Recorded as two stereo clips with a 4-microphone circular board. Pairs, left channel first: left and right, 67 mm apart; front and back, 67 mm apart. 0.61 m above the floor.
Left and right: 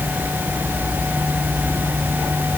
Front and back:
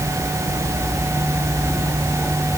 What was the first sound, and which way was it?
Only background noise.